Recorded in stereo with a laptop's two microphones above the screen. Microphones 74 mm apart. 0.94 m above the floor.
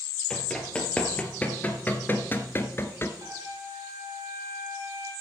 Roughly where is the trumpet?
Right.